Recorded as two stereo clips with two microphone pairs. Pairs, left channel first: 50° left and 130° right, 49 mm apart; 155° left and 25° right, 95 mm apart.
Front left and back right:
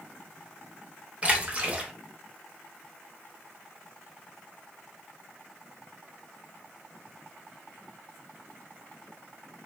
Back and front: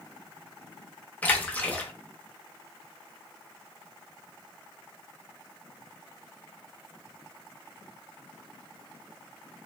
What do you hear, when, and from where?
1.2 s a splash: 160° right, 0.6 m